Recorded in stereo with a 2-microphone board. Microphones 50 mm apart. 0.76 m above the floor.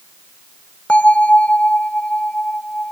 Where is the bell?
30° left (ahead or behind).